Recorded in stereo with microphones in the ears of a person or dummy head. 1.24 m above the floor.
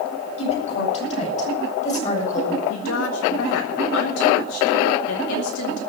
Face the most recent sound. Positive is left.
turn(degrees=65)  # may be behind; listen again after turning